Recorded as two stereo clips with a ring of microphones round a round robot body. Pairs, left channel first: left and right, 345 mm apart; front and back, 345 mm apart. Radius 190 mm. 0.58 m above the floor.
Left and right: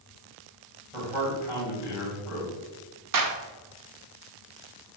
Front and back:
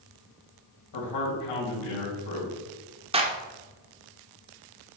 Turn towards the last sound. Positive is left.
turn(degrees=-110)